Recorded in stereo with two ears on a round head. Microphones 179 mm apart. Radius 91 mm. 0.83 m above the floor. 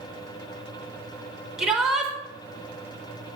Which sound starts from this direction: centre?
A shout, at 1.6 s.